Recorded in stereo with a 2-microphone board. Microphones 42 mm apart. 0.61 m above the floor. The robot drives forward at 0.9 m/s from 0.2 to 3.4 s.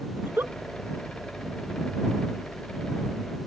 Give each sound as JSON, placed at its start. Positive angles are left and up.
{"t": 0.2, "sound": "a giggle", "side_deg": -65}